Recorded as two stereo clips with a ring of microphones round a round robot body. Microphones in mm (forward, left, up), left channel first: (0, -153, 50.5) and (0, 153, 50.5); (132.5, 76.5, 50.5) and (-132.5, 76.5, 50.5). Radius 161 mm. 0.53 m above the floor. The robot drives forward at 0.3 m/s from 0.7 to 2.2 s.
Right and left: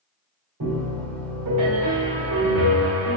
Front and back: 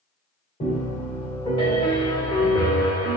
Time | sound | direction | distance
0.6 | a piano | 60° left | 1.9 m